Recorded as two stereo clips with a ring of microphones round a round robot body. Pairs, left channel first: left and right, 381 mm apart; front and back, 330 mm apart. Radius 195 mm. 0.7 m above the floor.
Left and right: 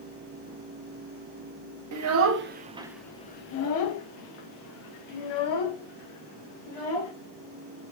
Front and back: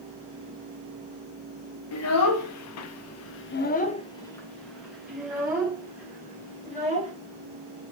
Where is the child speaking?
45° right, 0.8 m; by 7.1 s 100° left, 2 m.